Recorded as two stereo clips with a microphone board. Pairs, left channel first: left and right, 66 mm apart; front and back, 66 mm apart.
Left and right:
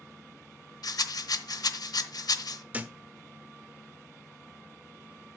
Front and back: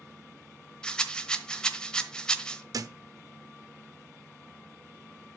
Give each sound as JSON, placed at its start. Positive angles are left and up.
{"t": 0.8, "sound": "a rattle", "azimuth_deg": 75, "distance_m": 1.0}
{"t": 2.7, "sound": "a thud", "azimuth_deg": -155, "distance_m": 0.9}